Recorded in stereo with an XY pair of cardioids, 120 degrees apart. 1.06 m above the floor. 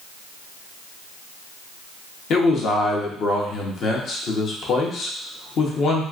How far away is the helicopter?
I don't hear a helicopter.